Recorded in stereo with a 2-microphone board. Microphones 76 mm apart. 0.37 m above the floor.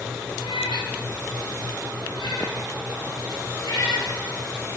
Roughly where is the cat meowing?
Left.